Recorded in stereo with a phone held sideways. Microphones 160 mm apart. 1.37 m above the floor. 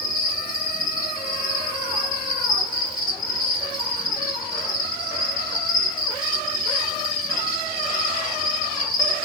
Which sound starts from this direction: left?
An insect, at 0.0 s.